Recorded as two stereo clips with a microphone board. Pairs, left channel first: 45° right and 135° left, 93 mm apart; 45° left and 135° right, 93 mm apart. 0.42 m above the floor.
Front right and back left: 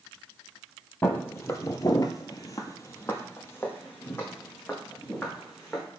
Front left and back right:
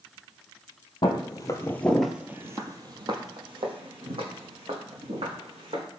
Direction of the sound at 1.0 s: 20° left.